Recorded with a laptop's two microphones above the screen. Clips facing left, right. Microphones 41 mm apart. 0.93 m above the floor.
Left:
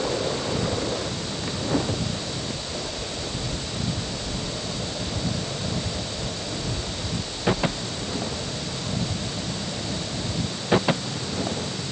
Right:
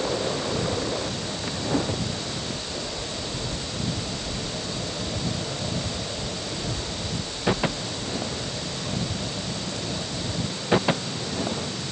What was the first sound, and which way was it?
Only background noise.